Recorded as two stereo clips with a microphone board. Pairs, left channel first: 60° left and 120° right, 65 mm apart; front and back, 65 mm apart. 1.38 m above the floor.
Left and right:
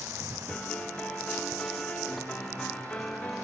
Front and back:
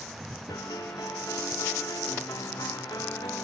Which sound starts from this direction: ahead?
A piano, at 0.5 s.